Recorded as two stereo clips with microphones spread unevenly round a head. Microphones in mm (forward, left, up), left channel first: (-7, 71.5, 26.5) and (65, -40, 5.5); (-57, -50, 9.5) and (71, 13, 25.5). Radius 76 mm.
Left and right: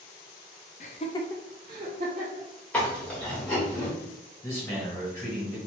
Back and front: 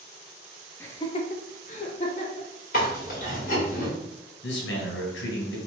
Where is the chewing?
170° right, 1.7 m.